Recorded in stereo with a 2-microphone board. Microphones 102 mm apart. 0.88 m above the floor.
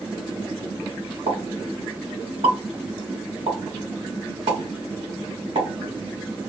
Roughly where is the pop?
Right.